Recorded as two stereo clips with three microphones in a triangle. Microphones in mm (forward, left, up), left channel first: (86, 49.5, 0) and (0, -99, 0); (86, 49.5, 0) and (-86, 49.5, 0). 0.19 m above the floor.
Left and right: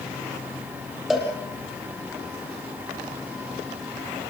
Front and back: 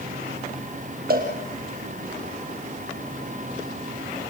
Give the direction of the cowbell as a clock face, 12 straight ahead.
7 o'clock.